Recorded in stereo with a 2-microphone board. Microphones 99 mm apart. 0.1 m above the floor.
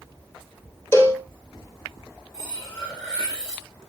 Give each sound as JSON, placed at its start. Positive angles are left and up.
{"t": 0.9, "sound": "a cowbell", "side_deg": 25, "distance_m": 2.5}
{"t": 2.3, "sound": "cutlery clinking", "side_deg": 30, "distance_m": 6.0}